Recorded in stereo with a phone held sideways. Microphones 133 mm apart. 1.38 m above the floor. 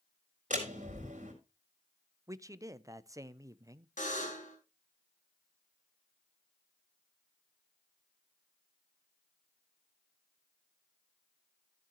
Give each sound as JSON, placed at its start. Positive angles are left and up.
{"t": 0.5, "sound": "a door slam", "side_deg": -70, "distance_m": 4.0}
{"t": 2.3, "sound": "a man speaking", "side_deg": -25, "distance_m": 0.6}
{"t": 4.0, "sound": "a buzzer", "side_deg": 75, "distance_m": 3.5}